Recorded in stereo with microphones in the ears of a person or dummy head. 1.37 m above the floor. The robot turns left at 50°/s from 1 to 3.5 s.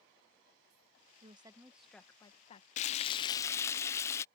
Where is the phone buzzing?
No phone buzzing in this recording.